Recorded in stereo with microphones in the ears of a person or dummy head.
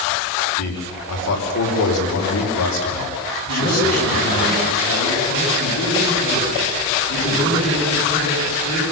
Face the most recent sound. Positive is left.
turn(degrees=70)  # may be behind; listen again after turning